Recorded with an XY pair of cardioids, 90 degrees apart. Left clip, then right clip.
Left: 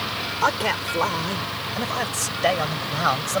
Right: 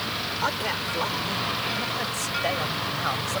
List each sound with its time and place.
0.4 s a man speaking: 50° left; by 3.4 s 55° left